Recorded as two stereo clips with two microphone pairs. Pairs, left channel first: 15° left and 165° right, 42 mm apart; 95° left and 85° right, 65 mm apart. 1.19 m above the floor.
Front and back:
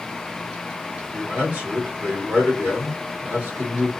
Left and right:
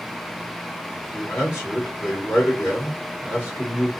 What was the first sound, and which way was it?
A man speaking, 145° left.